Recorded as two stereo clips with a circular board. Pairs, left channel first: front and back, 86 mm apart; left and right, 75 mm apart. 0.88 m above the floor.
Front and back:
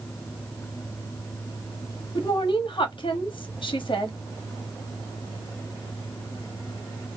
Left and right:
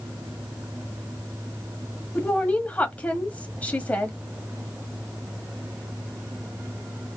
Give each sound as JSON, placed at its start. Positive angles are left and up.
{"t": 2.1, "sound": "a woman speaking", "azimuth_deg": 20, "distance_m": 1.2}